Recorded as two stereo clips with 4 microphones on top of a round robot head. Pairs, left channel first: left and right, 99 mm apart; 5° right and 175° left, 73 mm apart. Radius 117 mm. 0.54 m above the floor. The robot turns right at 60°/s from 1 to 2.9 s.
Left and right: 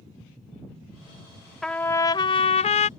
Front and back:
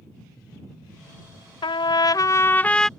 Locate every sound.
1.6 s a trumpet: 5° left; by 2.9 s 80° left